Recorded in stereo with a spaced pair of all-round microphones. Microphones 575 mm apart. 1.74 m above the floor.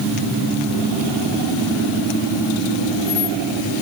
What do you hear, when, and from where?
Only background noise.